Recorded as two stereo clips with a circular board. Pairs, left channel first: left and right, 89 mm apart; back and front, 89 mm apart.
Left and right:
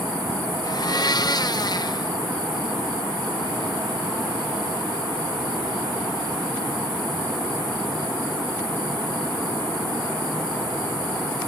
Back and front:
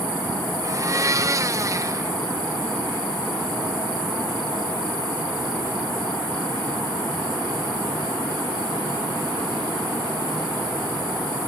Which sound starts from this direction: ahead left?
A blender, at 0.6 s.